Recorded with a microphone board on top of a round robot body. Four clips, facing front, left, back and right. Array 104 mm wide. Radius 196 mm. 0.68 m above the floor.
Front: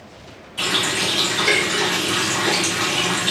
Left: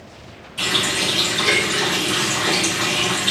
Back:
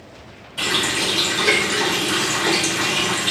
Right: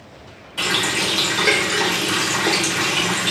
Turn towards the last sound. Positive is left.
turn(degrees=-95)